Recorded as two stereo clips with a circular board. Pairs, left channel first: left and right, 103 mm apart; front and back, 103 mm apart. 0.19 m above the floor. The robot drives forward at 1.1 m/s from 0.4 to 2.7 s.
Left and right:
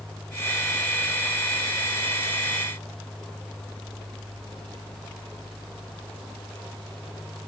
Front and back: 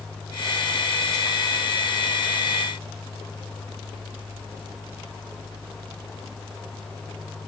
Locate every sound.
Only background noise.